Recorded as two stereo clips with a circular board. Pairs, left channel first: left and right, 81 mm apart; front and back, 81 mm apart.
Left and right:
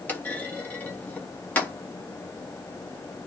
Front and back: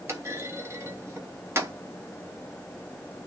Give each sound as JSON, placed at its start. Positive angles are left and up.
{"t": 0.1, "sound": "a clunk", "azimuth_deg": 150, "distance_m": 1.1}